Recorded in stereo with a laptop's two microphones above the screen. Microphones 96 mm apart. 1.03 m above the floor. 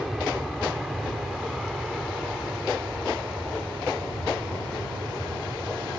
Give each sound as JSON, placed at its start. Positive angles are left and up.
{"t": 0.0, "sound": "an aircraft", "side_deg": 0}